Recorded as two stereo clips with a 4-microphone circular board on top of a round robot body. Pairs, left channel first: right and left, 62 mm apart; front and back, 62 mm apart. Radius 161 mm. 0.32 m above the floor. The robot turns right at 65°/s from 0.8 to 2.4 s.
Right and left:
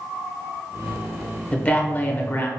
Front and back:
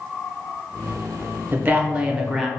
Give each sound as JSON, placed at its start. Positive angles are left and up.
{"t": 1.5, "sound": "a man speaking", "azimuth_deg": -150, "distance_m": 1.0}